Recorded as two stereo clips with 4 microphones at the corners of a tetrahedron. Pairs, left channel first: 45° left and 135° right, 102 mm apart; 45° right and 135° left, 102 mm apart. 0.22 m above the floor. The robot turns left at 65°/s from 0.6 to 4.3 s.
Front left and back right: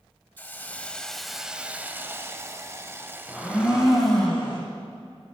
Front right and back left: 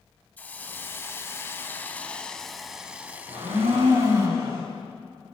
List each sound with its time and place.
0.4 s a hiss: 5° right, 0.6 m; by 4.3 s 115° left, 0.6 m
3.3 s a blender: 145° left, 3.5 m; by 4.6 s 75° left, 3.5 m